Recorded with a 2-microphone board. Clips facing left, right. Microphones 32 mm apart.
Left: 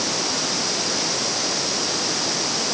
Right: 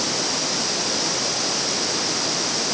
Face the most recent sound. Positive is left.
No sound to turn to.